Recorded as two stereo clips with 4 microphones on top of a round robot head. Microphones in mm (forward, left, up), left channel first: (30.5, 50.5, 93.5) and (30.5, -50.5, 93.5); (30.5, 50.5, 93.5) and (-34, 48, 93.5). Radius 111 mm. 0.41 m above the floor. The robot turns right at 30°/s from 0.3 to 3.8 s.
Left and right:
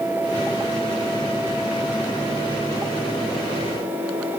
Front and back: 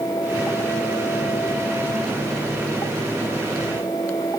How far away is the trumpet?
No trumpet in this recording.